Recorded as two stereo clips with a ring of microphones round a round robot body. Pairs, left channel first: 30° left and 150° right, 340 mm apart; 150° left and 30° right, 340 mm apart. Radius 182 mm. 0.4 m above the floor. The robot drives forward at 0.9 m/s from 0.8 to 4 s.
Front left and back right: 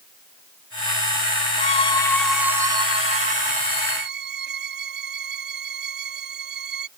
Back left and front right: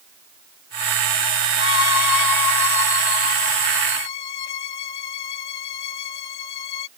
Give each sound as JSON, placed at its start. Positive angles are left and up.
{"t": 1.6, "sound": "a violin", "azimuth_deg": 95}